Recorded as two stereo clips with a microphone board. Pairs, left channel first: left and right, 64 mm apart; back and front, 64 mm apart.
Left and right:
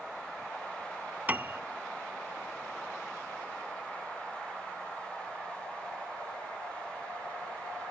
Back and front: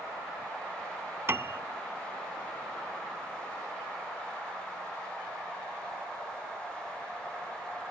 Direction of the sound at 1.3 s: 35° right.